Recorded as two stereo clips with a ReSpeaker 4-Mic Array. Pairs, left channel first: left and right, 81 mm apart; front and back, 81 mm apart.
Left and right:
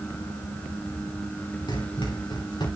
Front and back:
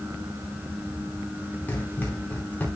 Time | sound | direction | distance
1.7 | running footsteps | 70° left | 6.5 m